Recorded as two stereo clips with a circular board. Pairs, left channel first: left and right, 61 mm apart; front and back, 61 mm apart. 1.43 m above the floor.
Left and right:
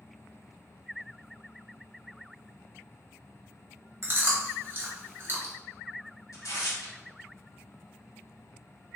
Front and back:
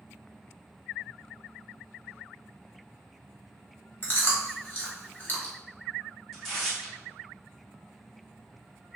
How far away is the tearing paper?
About 1.5 m.